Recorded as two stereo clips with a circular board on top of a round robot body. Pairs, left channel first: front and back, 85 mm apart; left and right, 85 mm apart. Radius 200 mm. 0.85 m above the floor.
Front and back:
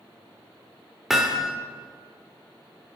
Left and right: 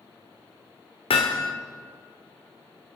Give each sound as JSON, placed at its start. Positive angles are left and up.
{"t": 1.1, "sound": "hammering", "azimuth_deg": 95, "distance_m": 1.4}